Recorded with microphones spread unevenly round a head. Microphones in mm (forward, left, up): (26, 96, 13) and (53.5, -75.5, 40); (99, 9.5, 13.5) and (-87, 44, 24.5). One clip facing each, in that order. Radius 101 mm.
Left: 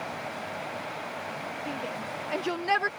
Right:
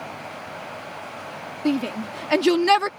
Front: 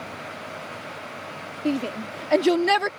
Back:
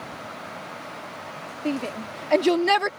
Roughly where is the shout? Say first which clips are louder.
Right 15 dB, front 2 dB; right.